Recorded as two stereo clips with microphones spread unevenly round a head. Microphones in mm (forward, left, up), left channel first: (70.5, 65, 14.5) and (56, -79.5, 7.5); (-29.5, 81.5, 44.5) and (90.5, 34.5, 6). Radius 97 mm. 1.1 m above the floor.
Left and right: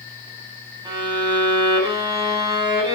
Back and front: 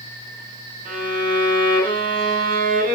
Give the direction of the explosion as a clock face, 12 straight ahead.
No explosion in this recording.